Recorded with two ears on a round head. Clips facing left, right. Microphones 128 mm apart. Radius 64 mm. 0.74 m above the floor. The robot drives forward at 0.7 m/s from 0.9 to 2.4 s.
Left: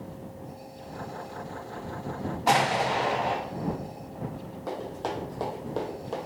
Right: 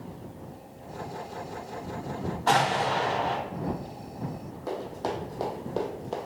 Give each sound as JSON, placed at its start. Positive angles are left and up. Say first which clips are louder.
{"t": 2.5, "sound": "an explosion", "louder": "even", "side_deg": 15, "distance_m": 0.7}
{"t": 4.7, "sound": "running footsteps", "louder": "right 1 dB", "side_deg": -5, "distance_m": 2.0}